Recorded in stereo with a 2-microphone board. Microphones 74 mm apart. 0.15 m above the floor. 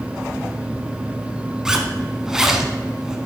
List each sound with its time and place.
1.6 s a zipper: 10° right (ahead or behind), 0.8 m